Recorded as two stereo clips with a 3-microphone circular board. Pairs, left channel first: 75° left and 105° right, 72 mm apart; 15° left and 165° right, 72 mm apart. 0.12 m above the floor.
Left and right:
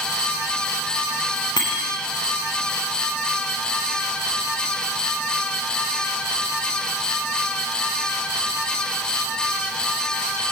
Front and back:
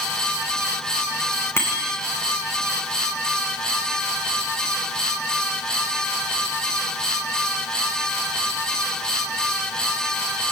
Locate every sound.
1.6 s a bicycle bell: 70° left, 6.5 m